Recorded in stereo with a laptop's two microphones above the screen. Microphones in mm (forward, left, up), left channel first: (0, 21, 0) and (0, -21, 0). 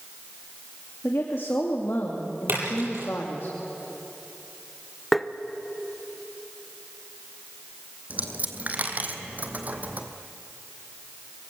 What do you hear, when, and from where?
1.0 s a woman speaking: 65° left (ahead or behind), 2.5 m
2.5 s a splash: 55° right (ahead or behind), 8.5 m
5.1 s tapping: 5° left (ahead or behind), 0.7 m
8.1 s a dropped coin: 40° right (ahead or behind), 1.8 m